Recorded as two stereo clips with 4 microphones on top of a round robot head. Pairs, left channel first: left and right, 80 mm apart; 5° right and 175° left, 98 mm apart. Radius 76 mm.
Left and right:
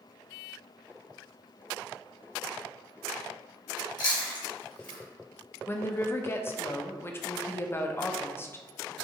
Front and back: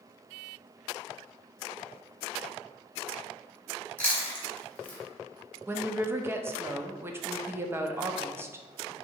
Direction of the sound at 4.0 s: 70° left.